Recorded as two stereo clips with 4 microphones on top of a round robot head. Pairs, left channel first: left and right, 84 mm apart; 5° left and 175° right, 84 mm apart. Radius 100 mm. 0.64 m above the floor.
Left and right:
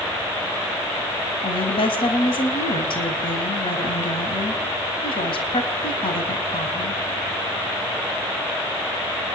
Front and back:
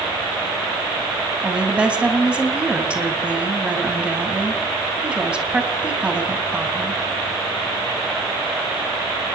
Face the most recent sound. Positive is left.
turn(degrees=105)